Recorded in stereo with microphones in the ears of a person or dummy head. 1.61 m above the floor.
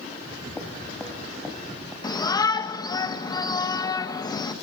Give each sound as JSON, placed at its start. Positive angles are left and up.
{"t": 0.1, "sound": "footsteps", "side_deg": 10, "distance_m": 3.5}
{"t": 2.0, "sound": "a shout", "side_deg": 20, "distance_m": 2.0}